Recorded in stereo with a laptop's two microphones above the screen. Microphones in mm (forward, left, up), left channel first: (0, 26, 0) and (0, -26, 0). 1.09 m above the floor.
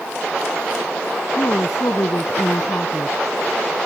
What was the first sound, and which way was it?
A woman speaking, 85° left.